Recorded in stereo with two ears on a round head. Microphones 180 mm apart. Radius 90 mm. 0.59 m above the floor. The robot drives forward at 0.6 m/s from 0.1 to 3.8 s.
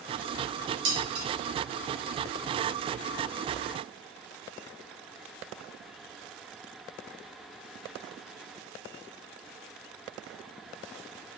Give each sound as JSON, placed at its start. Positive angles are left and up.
{"t": 0.8, "sound": "dishes clattering", "side_deg": -75, "distance_m": 2.5}